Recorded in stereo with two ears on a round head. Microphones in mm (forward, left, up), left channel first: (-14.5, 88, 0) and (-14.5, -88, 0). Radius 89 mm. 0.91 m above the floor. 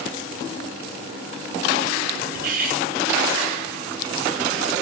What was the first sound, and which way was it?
Cutlery clinking, 45° right (ahead or behind).